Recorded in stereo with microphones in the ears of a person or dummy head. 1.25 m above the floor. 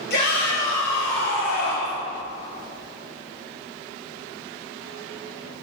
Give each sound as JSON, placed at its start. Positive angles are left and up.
{"t": 0.1, "sound": "a shout", "side_deg": 65, "distance_m": 4.0}